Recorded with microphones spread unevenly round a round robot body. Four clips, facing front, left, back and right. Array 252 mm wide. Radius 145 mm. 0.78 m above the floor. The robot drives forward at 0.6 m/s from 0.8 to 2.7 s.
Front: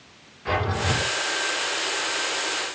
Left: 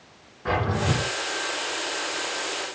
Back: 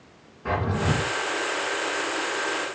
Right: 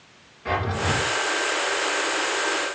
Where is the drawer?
145° left, 3.5 m.